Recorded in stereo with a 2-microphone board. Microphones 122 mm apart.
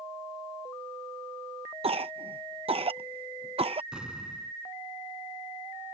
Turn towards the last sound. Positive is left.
turn(degrees=-5)  # may be behind; listen again after turning